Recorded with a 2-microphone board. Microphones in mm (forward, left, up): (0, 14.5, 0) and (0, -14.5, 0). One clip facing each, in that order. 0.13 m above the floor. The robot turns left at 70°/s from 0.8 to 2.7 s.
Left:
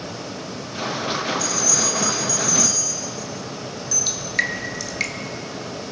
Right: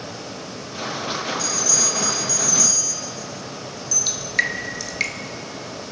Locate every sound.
1.4 s a bell: 70° right (ahead or behind), 7 m; by 4.0 s 20° left (ahead or behind), 7 m
4.1 s dripping: 5° right (ahead or behind), 1.4 m